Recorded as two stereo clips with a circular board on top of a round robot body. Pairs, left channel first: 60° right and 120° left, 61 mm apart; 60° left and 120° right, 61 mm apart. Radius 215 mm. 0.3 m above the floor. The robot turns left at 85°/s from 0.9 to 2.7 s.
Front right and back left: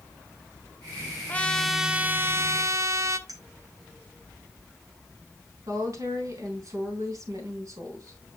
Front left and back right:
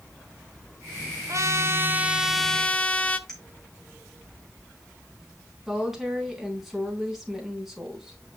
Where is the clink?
140° left, 4.5 m.